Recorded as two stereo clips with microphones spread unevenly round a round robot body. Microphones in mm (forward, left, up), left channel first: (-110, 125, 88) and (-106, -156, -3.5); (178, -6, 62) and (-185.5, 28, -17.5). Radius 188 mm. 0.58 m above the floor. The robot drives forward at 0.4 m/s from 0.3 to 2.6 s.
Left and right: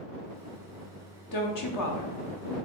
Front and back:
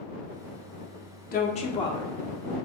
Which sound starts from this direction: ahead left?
A woman speaking, at 1.3 s.